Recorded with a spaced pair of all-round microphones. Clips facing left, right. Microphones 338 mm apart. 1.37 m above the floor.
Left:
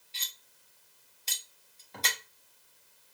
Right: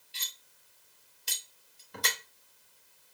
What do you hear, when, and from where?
0.1 s cutlery clinking: 20° right (ahead or behind), 1.0 m